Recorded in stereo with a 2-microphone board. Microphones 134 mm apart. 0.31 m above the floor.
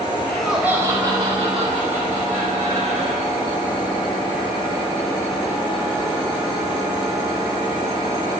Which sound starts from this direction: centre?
Laughter, at 0.3 s.